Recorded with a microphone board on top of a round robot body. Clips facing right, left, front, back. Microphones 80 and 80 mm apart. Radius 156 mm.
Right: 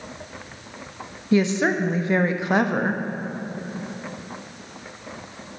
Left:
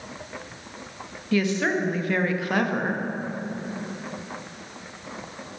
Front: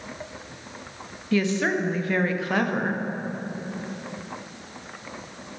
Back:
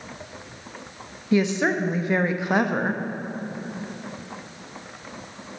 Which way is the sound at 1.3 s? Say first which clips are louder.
Right 3 dB, back 2 dB; 130° right.